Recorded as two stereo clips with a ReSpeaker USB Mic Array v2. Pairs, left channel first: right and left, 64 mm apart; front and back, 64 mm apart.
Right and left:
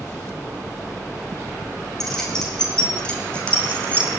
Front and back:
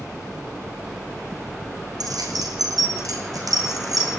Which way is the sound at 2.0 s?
175° right.